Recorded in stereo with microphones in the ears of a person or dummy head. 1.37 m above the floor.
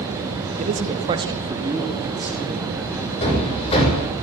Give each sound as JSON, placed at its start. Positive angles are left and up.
{"t": 0.6, "sound": "a man speaking", "side_deg": -40, "distance_m": 1.9}
{"t": 3.2, "sound": "hammering", "side_deg": 30, "distance_m": 5.5}